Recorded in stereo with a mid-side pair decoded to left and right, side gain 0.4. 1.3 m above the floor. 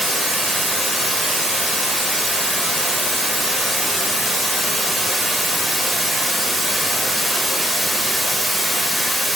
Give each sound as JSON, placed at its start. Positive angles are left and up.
{"t": 0.0, "sound": "running water", "azimuth_deg": 0, "distance_m": 1.3}